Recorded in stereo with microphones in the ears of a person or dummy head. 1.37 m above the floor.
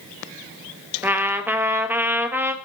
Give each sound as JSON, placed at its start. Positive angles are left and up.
{"t": 1.0, "sound": "a trumpet", "side_deg": -10, "distance_m": 1.1}